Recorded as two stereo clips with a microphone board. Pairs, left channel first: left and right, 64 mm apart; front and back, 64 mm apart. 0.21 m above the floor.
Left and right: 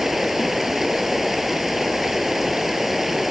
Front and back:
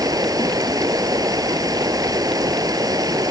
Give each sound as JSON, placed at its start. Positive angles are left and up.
{"t": 0.0, "sound": "running water", "azimuth_deg": -175}